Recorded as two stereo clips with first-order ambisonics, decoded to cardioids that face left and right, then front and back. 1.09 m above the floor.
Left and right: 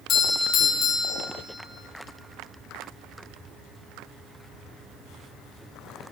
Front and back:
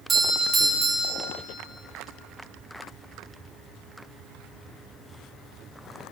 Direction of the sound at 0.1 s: 120° left.